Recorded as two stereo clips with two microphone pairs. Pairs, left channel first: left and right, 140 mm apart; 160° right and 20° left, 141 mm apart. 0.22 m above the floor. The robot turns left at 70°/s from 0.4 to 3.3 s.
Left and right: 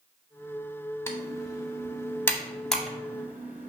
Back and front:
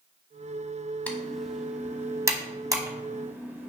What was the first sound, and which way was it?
Typing on a keyboard, 130° left.